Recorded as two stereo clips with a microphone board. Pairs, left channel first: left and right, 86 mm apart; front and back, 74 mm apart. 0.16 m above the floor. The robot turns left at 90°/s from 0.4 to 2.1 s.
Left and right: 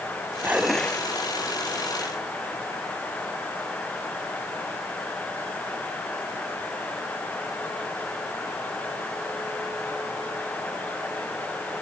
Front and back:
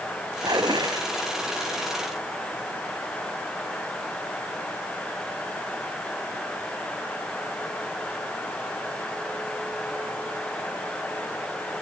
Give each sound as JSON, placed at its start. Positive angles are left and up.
{"t": 0.4, "sound": "dishes clattering", "azimuth_deg": -155}